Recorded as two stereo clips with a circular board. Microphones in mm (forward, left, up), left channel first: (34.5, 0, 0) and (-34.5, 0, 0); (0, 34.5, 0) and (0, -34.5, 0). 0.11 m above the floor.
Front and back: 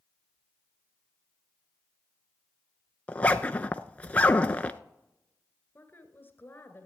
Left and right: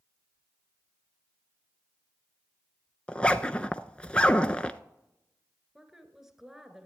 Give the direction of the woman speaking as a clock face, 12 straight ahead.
12 o'clock.